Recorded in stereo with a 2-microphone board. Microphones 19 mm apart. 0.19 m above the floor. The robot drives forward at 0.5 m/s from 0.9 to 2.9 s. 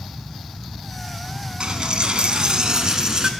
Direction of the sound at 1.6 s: 45° right (ahead or behind).